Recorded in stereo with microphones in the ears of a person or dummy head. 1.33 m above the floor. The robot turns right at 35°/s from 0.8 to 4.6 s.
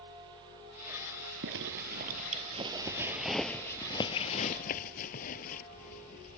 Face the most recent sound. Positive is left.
turn(degrees=45)  # may be behind; listen again after turning